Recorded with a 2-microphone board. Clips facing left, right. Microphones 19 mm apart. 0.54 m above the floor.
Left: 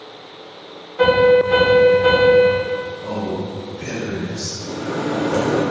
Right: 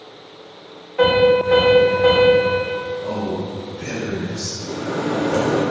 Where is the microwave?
25° right (ahead or behind), 0.8 m.